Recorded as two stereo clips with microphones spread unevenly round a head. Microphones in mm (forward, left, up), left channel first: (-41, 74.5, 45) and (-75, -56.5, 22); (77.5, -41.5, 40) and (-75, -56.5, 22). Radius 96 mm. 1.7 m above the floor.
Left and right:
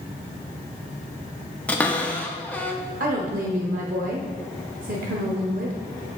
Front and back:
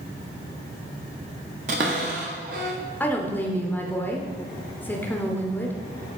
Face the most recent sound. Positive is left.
turn(degrees=-75)